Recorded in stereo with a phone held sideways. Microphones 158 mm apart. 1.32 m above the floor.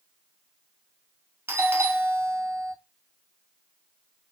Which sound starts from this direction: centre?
A doorbell, at 1.5 s.